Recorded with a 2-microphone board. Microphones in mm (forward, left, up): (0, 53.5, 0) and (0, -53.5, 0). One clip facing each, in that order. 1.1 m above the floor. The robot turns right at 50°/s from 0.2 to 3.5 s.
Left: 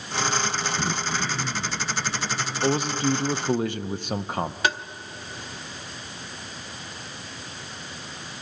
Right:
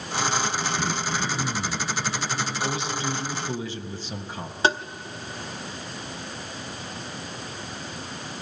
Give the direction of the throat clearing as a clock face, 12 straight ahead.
7 o'clock.